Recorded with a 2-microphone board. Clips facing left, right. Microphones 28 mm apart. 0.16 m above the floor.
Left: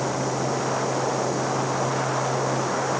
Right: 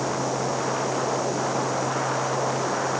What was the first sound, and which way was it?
Only background noise.